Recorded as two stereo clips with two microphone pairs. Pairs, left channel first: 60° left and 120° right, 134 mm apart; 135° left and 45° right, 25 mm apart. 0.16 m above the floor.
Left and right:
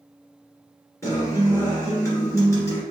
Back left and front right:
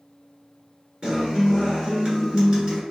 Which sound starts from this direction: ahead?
A guitar, at 1.0 s.